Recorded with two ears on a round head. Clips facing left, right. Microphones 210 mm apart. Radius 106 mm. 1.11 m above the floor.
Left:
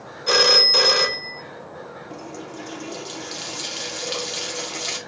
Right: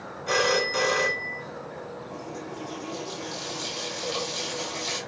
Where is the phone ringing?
55° left (ahead or behind), 0.7 m.